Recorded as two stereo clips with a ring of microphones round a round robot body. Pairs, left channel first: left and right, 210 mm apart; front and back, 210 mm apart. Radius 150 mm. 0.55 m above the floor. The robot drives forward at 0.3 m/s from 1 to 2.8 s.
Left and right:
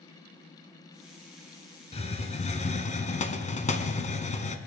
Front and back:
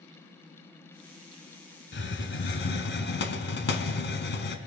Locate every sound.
1.9 s a hiss: 30° left, 1.8 m; by 4.6 s 35° left, 1.6 m